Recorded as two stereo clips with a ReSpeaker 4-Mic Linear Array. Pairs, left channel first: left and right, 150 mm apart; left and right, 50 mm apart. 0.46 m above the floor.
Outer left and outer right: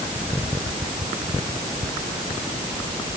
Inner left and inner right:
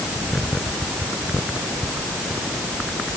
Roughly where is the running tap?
I don't hear a running tap.